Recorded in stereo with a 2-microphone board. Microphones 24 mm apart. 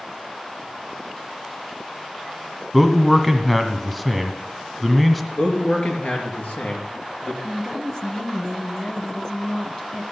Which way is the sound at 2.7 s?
Centre (ahead or behind).